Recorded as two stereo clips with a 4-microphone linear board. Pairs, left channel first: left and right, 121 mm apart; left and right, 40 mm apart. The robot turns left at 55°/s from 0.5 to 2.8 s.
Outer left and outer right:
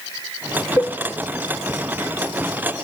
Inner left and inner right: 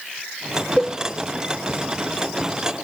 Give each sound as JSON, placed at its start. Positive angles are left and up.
{"t": 0.8, "sound": "a cowbell", "side_deg": 25, "distance_m": 0.7}